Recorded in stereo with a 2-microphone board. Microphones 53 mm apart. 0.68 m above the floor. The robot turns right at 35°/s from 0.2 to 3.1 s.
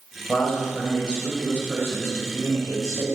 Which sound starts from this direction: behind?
A man speaking, at 0.3 s.